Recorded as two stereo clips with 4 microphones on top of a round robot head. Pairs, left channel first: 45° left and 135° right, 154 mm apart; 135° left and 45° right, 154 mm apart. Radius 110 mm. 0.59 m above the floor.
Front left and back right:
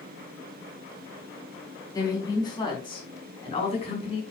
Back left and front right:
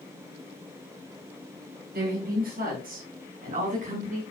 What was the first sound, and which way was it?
A woman speaking, 25° right.